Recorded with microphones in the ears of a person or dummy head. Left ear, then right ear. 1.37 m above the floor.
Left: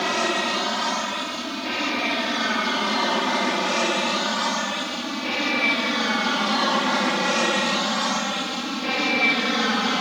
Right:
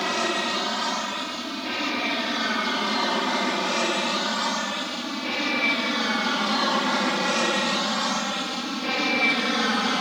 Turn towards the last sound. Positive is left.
turn(degrees=0)  # may be behind; listen again after turning